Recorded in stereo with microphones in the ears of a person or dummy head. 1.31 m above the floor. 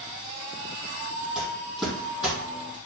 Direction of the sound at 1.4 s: Centre (ahead or behind).